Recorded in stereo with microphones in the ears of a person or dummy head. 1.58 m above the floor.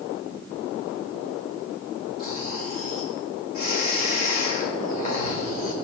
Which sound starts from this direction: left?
Snoring, at 2.2 s.